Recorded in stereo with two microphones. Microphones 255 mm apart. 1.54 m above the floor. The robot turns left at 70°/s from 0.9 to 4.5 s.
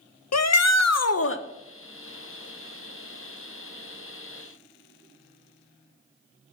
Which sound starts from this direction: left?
A shout, at 0.3 s.